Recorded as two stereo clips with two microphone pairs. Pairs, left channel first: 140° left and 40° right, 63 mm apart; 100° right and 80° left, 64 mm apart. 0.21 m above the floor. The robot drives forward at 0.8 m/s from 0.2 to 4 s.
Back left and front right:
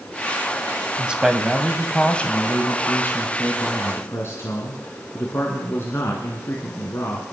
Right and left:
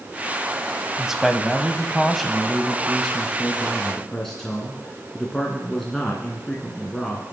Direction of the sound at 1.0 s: 10° left.